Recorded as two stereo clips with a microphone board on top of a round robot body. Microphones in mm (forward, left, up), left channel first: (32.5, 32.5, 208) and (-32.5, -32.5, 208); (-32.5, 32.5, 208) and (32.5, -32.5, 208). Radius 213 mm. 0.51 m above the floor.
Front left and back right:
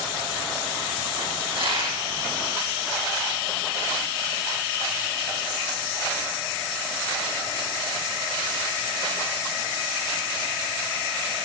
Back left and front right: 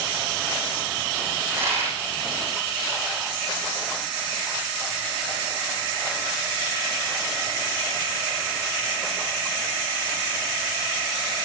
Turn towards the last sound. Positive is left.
turn(degrees=-110)